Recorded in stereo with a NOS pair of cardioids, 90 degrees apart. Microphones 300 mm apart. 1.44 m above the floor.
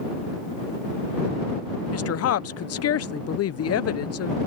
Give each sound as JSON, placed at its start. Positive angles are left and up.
{"t": 1.9, "sound": "a woman speaking", "azimuth_deg": 55}